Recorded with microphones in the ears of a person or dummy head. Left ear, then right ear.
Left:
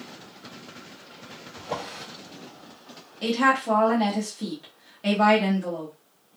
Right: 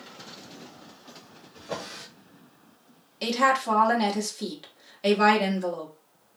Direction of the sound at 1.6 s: 15° right (ahead or behind).